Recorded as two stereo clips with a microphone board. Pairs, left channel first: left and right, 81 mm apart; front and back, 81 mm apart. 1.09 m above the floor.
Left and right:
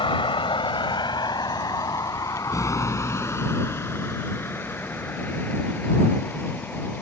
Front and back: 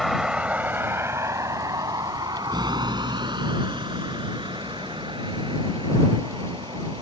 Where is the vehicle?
90° left; by 7.0 s 160° left.